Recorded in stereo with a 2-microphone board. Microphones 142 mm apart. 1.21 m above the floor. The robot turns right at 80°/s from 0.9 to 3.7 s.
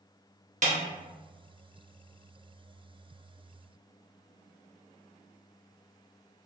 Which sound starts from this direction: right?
A snare drum, at 0.6 s.